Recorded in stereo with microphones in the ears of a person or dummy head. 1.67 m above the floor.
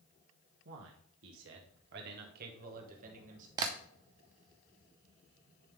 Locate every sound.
0.7 s a man speaking: 70° right (ahead or behind), 1.1 m; by 3.5 s 45° right (ahead or behind), 1.8 m
3.6 s tapping: 25° right (ahead or behind), 0.8 m